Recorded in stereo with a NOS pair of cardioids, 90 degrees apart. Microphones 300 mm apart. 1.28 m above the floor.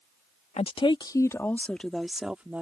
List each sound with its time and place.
0.6 s a woman speaking: 20° left; by 2.6 s 5° right